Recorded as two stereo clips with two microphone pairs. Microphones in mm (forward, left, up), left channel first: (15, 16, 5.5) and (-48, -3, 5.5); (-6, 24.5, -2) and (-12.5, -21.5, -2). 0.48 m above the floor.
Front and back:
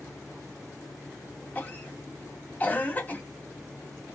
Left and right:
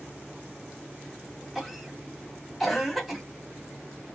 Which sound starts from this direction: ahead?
A cough, at 1.6 s.